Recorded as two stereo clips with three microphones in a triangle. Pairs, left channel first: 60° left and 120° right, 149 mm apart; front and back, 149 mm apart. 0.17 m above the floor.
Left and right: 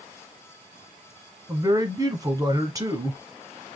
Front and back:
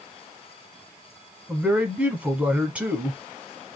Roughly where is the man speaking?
Right.